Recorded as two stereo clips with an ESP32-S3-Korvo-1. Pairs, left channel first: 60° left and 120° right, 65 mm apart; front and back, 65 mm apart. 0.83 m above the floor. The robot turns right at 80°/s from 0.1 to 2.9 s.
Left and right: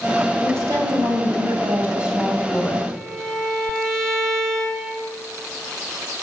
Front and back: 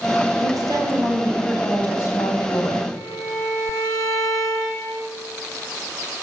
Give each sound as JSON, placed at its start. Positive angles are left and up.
{"t": 0.4, "sound": "a woman speaking", "azimuth_deg": -175, "distance_m": 4.0}
{"t": 2.9, "sound": "a violin", "azimuth_deg": -25, "distance_m": 3.5}